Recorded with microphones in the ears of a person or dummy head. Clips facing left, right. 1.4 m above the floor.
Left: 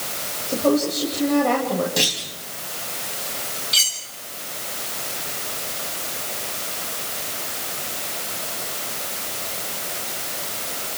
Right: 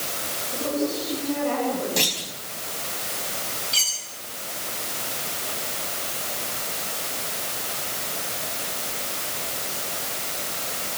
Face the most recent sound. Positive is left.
turn(degrees=20)  # may be behind; listen again after turning